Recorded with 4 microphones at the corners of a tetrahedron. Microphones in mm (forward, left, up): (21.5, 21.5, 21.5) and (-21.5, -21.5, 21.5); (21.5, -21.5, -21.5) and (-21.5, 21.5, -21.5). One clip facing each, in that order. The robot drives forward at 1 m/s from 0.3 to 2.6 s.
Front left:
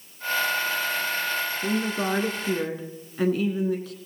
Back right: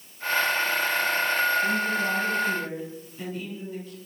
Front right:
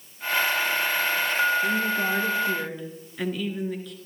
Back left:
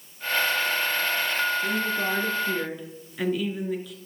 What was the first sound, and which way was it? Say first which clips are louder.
A woman speaking: back right 1 dB, front right 2 dB; 35° left.